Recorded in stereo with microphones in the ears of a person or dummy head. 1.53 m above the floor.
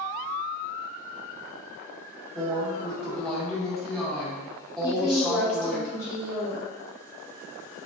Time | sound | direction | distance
2.4 | a woman speaking | 5° left (ahead or behind) | 1.4 m
4.8 | a woman speaking | 50° left (ahead or behind) | 2.0 m